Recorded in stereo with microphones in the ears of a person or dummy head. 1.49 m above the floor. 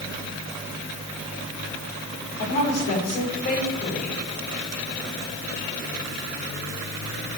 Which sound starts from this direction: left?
A woman speaking, at 2.4 s.